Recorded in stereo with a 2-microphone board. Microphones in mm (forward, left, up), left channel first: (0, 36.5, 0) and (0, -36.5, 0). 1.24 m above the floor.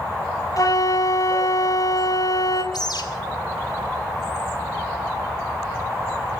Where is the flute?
50° left (ahead or behind), 2 m.